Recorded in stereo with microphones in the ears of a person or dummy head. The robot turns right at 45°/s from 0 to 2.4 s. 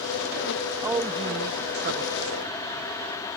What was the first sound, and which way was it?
A woman speaking, 170° right.